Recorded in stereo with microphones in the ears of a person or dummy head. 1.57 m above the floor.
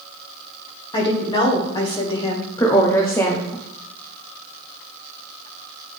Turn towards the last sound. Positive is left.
turn(degrees=20)  # may be behind; listen again after turning